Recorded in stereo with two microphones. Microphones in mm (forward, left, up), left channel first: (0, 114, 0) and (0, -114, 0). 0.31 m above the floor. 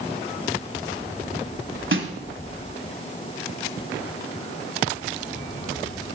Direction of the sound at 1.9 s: 60° right (ahead or behind).